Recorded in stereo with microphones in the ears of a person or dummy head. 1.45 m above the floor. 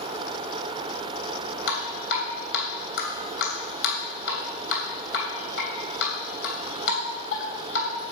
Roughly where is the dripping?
Left.